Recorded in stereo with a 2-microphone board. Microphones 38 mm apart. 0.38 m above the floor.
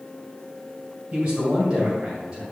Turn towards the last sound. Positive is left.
turn(degrees=-45)  # may be behind; listen again after turning